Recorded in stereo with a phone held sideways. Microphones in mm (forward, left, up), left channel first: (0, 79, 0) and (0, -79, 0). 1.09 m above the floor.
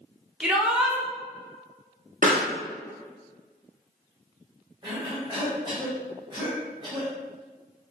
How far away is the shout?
About 0.9 m.